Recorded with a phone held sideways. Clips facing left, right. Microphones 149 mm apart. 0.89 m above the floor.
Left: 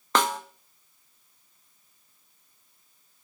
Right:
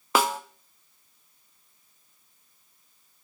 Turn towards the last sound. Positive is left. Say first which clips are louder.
# right 1 dB
turn(degrees=-10)  # may be behind; listen again after turning